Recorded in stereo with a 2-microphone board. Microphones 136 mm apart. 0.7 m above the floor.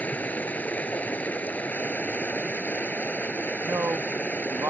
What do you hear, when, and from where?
0.0 s running water: 10° left (ahead or behind)
3.6 s a man speaking: 20° right (ahead or behind)